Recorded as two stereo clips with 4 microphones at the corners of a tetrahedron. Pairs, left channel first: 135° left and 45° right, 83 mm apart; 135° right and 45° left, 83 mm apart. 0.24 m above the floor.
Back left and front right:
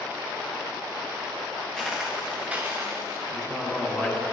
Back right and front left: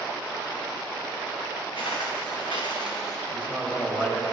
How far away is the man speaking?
About 1.4 m.